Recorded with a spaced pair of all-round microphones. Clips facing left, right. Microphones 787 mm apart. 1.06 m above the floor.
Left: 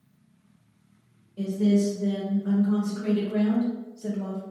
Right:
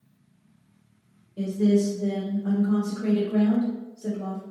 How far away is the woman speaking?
About 1.2 m.